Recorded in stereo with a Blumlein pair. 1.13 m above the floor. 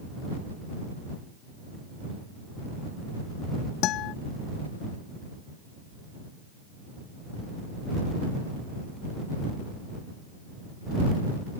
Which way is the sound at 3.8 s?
35° left.